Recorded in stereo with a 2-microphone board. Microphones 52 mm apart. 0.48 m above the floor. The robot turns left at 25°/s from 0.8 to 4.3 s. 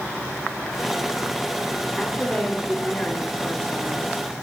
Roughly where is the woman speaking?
Behind left.